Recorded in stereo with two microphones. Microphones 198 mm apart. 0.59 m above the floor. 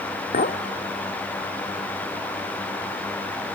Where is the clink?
50° left (ahead or behind), 0.8 m.